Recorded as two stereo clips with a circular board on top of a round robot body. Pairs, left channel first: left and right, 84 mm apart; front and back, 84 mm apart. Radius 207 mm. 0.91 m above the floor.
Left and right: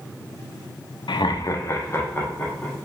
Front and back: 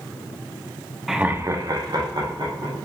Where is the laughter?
90° left, 0.5 m; by 2.8 s 160° left, 1.5 m.